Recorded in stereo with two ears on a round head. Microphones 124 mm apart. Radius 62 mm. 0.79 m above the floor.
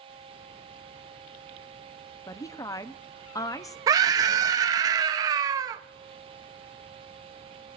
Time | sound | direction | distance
2.3 | a woman speaking | 20° left (ahead or behind) | 0.7 m
3.9 | a scream | 25° right (ahead or behind) | 0.7 m